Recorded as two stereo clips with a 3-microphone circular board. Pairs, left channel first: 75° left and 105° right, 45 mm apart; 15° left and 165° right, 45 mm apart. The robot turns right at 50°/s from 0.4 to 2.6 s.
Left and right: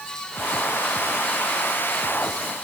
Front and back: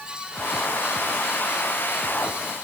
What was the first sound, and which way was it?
Only background noise.